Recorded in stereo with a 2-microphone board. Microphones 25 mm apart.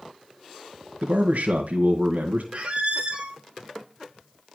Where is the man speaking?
85° right, 1.8 m.